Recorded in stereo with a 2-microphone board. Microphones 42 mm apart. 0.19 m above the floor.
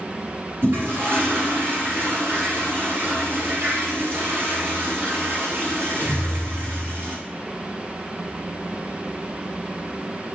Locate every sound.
0.6 s a toilet flushing: 60° right (ahead or behind), 1.3 m